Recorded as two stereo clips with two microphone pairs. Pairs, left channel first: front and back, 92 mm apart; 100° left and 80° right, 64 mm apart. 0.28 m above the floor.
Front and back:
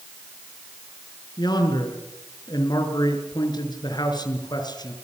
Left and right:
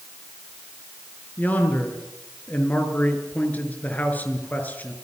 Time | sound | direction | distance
1.4 | a man speaking | 40° left | 5 m